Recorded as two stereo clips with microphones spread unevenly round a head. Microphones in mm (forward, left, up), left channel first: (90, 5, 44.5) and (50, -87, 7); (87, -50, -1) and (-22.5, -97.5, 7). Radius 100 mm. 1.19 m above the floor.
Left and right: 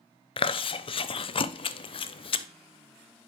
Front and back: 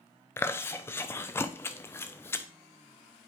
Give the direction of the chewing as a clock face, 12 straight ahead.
10 o'clock.